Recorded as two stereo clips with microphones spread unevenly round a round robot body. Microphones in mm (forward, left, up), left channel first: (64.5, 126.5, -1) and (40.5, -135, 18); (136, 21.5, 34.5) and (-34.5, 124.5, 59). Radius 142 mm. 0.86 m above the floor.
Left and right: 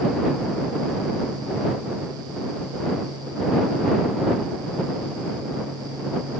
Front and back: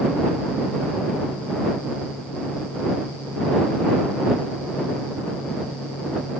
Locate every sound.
Only background noise.